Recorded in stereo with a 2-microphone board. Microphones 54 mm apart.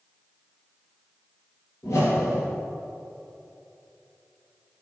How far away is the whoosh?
About 4 m.